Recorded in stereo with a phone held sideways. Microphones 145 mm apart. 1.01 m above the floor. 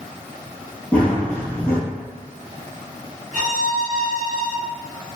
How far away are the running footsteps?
About 1.1 m.